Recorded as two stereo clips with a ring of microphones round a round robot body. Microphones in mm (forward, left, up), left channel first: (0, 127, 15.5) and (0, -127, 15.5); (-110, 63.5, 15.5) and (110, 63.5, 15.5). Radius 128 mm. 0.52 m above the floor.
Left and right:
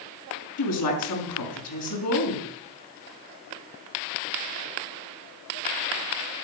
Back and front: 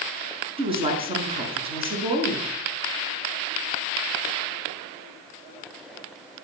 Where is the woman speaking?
65° left, 6 m.